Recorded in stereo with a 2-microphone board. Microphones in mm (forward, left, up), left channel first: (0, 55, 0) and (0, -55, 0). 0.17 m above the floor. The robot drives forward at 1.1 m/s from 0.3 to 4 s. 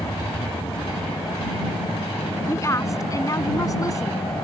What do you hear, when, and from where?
0.0 s an aircraft: 60° left (ahead or behind); by 4.5 s 55° left (ahead or behind)
2.5 s a woman speaking: 30° left (ahead or behind)